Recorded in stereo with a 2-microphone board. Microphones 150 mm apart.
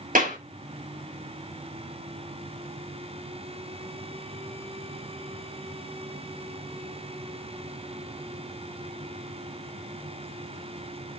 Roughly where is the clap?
Right.